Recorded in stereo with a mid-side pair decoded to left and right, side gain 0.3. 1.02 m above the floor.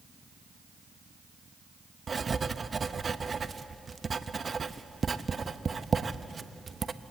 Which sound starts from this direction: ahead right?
Writing, at 2.1 s.